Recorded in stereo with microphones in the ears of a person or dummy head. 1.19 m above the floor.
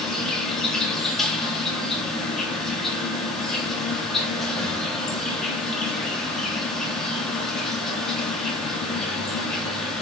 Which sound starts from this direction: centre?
An insect, at 0.0 s.